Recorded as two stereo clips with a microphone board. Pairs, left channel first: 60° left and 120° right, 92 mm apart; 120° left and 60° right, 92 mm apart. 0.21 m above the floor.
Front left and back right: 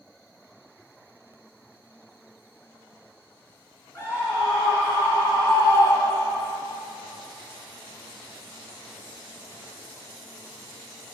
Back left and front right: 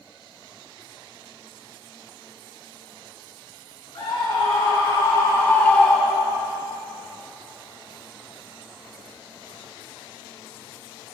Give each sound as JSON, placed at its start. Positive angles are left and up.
{"t": 4.0, "sound": "a scream", "azimuth_deg": 110, "distance_m": 2.5}